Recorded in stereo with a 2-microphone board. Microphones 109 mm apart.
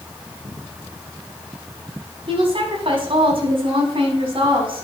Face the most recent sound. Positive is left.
turn(degrees=-50)  # may be behind; listen again after turning